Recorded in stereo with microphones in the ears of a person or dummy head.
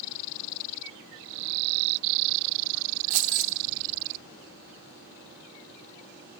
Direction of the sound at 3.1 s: 40° right (ahead or behind).